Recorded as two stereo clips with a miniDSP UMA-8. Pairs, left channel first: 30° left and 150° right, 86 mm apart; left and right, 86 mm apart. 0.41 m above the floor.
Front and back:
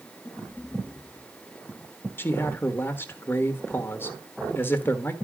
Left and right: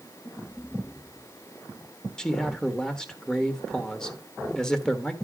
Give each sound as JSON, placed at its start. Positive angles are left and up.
{"t": 2.2, "sound": "a man speaking", "azimuth_deg": 15, "distance_m": 1.3}